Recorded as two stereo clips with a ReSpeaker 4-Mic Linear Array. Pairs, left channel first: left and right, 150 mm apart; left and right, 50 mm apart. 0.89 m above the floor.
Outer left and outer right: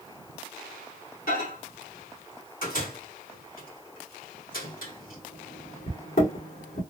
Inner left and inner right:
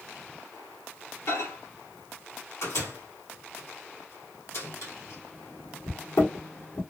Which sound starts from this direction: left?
A microwave, at 1.3 s.